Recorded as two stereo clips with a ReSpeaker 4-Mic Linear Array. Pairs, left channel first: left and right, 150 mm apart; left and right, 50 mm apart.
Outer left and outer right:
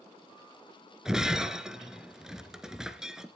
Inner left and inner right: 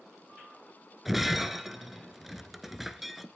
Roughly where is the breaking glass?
Centre.